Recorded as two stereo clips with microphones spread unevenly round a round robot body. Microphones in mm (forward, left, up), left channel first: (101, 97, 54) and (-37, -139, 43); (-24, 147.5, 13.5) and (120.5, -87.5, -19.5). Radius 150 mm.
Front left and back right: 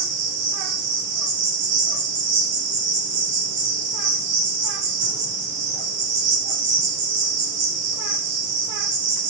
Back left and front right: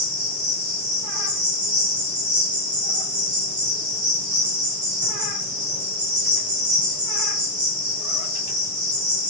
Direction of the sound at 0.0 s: 120° right.